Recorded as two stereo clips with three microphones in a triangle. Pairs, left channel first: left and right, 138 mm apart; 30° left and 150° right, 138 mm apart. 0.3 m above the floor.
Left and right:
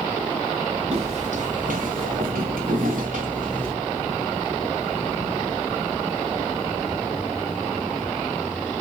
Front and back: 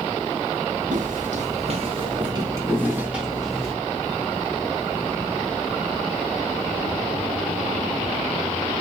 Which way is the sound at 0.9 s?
130° right.